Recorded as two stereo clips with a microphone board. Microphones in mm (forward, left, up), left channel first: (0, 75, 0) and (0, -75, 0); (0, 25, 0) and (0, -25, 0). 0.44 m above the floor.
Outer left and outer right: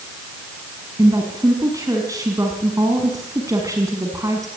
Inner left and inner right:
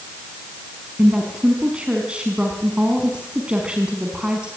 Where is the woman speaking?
20° right (ahead or behind), 4.5 m.